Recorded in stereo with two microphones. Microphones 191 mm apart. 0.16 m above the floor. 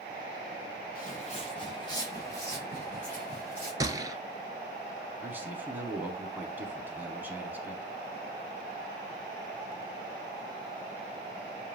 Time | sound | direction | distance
0.9 | footsteps | 45° left (ahead or behind) | 1.4 m
3.8 | a gunshot | 20° right (ahead or behind) | 0.6 m
5.2 | a man speaking | 10° right (ahead or behind) | 1.1 m